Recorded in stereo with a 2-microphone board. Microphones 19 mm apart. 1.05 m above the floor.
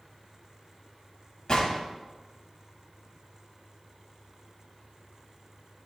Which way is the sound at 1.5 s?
50° left (ahead or behind).